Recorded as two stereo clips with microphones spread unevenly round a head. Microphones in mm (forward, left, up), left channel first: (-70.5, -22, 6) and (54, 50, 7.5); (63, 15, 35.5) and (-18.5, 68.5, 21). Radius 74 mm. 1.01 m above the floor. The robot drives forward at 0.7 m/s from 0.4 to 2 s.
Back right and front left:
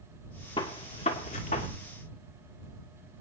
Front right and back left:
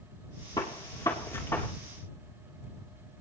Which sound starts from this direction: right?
A gunshot, at 0.6 s.